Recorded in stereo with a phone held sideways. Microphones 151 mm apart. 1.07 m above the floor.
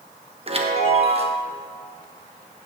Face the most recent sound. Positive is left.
turn(degrees=-40)  # may be behind; listen again after turning